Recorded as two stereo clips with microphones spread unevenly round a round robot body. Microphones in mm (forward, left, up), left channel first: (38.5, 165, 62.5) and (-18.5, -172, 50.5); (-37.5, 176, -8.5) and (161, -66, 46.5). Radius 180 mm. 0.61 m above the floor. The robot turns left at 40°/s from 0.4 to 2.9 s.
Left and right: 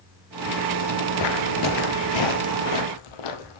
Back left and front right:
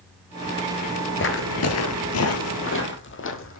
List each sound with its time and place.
1.2 s footsteps: 80° left, 0.7 m